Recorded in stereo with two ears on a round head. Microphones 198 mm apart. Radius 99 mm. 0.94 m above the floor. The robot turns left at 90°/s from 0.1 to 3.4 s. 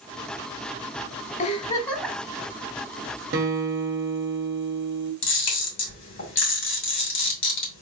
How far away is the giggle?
About 1.1 m.